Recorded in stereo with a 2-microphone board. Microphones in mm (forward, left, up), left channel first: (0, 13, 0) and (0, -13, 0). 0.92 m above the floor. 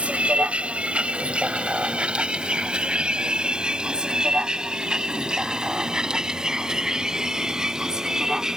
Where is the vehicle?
55° right (ahead or behind); by 8.6 s 25° right (ahead or behind).